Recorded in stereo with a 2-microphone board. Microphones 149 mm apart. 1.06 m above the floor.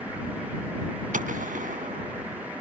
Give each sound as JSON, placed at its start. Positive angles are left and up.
{"t": 1.1, "sound": "a gunshot", "side_deg": -75}